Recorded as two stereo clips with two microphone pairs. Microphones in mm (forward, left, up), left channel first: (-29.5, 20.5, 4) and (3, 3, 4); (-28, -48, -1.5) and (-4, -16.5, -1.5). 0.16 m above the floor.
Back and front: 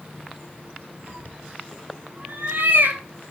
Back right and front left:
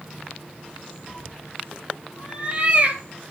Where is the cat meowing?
20° right, 3 m; by 3.0 s straight ahead, 2 m.